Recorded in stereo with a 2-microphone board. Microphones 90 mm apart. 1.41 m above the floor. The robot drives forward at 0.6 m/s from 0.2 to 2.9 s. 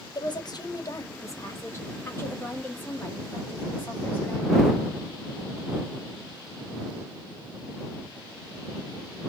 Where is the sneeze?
I don't hear a sneeze.